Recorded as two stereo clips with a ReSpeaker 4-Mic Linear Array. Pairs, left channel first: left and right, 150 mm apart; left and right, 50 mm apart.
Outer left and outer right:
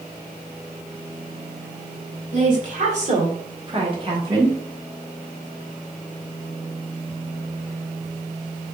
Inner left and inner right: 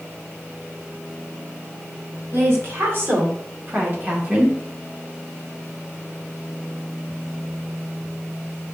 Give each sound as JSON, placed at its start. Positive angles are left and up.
{"t": 2.3, "sound": "a woman speaking", "side_deg": -55, "distance_m": 1.8}